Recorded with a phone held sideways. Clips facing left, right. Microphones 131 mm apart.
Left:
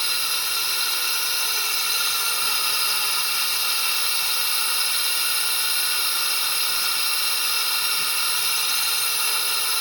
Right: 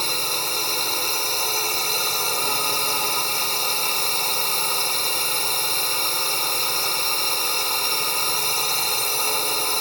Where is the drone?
40° right (ahead or behind).